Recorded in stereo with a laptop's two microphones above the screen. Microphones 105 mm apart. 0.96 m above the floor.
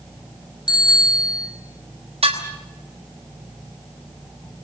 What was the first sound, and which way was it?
A bicycle bell, 45° left (ahead or behind).